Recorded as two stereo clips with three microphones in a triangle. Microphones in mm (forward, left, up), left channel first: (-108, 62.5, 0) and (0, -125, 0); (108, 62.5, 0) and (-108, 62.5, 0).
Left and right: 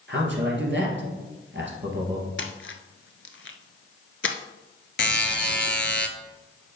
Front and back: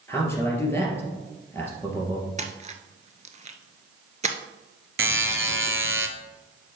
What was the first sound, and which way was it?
A man speaking, 75° right.